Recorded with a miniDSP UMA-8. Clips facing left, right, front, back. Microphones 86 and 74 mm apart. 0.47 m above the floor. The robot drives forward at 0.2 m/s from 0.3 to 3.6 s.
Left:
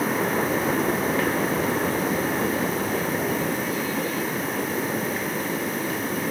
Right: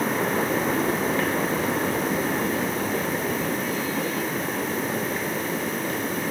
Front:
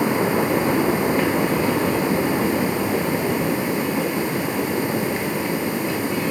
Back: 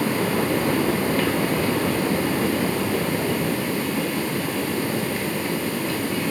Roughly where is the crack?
No crack in this recording.